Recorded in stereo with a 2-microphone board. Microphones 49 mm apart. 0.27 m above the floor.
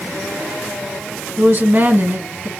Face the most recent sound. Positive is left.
turn(degrees=-45)  # may be behind; listen again after turning